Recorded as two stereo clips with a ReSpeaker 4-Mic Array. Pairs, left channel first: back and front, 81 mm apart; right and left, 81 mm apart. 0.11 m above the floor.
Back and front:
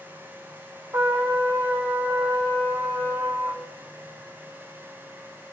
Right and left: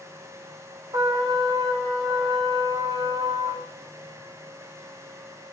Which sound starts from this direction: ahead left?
A trumpet, at 0.9 s.